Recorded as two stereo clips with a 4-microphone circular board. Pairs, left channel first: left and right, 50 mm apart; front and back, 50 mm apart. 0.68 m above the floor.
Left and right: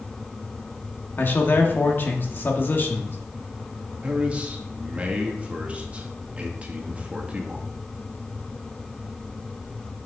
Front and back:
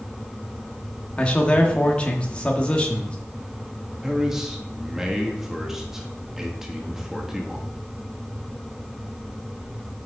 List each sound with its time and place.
1.2 s a man speaking: 60° left, 1.2 m
4.0 s a man speaking: 110° right, 1.2 m